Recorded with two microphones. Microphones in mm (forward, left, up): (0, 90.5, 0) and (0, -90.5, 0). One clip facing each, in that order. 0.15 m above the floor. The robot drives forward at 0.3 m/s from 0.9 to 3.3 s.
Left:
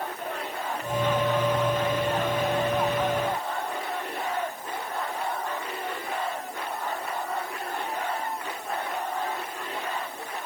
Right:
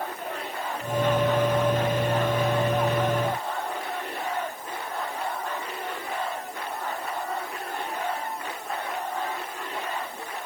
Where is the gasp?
No gasp in this recording.